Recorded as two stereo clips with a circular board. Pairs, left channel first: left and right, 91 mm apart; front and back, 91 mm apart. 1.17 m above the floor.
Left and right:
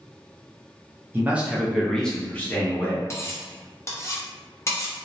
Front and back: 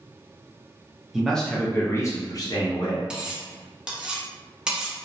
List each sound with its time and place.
1.1 s a man speaking: 100° right, 0.6 m; by 3.1 s 25° left, 1.0 m
3.1 s cutlery clinking: 105° left, 0.5 m